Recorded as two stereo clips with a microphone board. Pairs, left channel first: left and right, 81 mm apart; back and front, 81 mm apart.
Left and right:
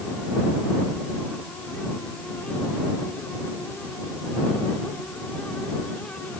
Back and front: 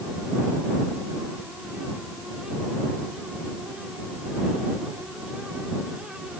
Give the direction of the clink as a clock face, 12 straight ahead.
No clink in this recording.